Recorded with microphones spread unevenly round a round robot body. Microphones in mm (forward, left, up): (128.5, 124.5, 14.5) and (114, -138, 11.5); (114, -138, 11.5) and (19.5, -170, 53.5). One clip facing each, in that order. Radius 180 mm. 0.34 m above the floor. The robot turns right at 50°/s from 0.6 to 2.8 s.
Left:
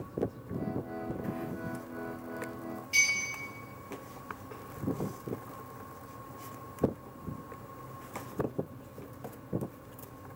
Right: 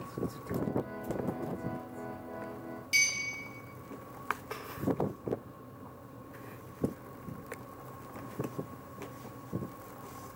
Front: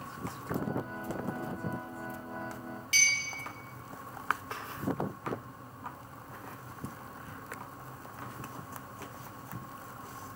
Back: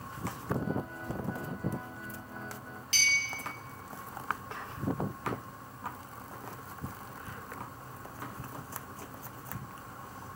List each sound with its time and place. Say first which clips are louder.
2.9 s a clink: left 1 dB, back 1 dB; 85° right, 1.0 m